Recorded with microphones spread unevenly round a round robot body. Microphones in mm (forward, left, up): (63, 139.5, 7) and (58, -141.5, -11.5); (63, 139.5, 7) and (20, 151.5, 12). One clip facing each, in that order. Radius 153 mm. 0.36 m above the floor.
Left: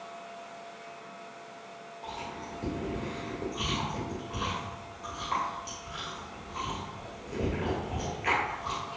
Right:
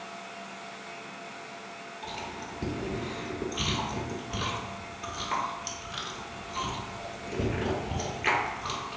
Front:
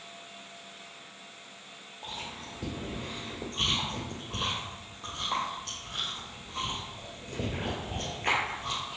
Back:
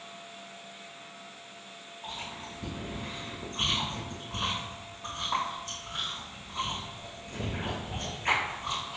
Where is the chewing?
60° right, 1.4 m.